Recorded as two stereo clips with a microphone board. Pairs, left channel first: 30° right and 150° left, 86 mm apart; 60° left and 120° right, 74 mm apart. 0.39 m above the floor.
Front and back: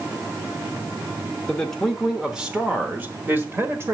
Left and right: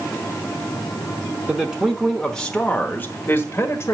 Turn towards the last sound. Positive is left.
turn(degrees=100)